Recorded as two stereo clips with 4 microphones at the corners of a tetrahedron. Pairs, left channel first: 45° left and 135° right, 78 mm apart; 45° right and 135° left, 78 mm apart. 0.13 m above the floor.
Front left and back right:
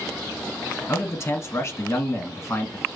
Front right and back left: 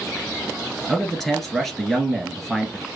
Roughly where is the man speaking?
Ahead left.